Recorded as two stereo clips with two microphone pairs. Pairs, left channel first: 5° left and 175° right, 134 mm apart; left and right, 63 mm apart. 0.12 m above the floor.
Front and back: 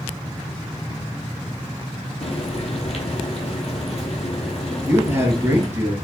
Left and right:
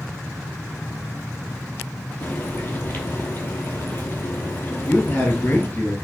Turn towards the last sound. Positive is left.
turn(degrees=125)